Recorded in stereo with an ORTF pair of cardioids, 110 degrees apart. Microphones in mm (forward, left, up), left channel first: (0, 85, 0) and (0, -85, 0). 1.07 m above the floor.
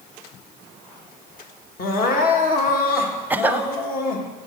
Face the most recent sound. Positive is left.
turn(degrees=-10)